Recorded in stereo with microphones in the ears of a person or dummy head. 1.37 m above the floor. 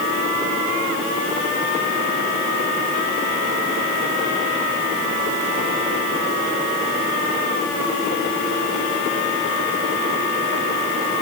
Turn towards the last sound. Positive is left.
No sound to turn to.